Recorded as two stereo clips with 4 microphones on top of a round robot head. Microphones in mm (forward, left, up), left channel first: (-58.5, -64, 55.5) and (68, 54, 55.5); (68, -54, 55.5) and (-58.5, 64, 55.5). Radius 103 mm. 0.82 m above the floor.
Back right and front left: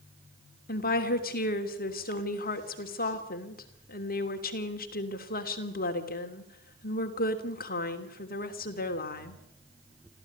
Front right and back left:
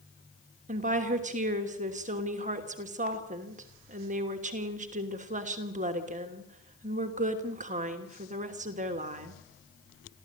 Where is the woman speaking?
175° right, 3 m.